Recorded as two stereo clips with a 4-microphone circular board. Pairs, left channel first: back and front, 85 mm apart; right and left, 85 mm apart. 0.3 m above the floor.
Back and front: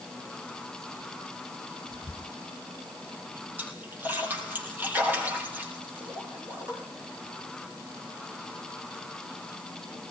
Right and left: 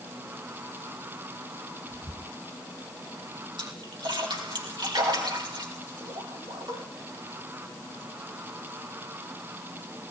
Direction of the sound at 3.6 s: 70° left.